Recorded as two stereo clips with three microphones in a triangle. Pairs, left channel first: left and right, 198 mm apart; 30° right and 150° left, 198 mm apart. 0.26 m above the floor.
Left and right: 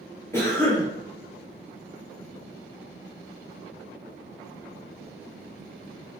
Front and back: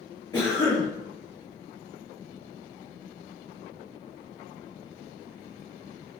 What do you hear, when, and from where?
0.3 s a cough: 20° left, 1.1 m